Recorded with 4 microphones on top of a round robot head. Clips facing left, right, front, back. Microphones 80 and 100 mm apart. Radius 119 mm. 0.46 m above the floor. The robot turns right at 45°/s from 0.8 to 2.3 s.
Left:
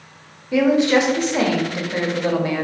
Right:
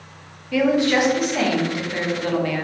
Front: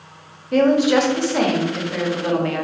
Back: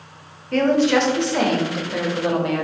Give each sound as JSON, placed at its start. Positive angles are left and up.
{"t": 0.5, "sound": "a woman speaking", "azimuth_deg": 65, "distance_m": 0.7}